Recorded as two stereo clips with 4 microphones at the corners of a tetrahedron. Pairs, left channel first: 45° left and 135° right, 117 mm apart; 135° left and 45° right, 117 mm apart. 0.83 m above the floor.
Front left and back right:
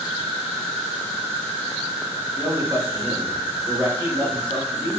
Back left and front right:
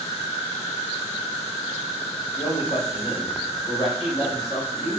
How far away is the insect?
About 0.8 m.